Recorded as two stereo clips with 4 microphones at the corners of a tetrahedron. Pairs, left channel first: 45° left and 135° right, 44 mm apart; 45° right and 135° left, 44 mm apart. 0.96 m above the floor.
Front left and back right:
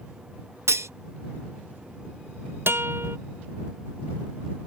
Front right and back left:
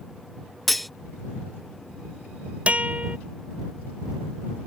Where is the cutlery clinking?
135° right.